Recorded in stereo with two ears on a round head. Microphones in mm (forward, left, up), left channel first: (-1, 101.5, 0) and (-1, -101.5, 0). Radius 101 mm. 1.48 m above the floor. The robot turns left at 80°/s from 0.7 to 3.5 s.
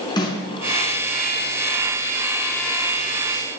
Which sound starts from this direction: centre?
A snare drum, at 0.2 s.